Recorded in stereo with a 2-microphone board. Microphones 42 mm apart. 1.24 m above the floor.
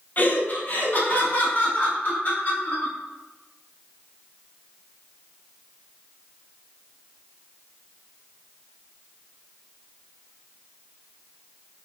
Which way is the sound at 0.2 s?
40° left (ahead or behind).